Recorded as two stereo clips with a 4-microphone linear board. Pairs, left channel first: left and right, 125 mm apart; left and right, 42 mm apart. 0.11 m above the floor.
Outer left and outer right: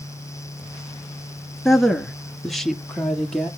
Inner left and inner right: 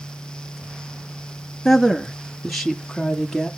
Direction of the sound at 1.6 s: Centre (ahead or behind).